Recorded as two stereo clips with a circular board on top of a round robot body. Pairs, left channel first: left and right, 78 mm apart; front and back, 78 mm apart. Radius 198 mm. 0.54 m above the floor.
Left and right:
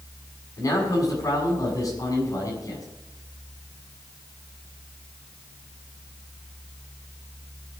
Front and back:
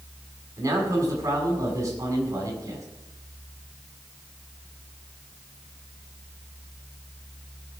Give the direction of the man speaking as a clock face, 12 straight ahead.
8 o'clock.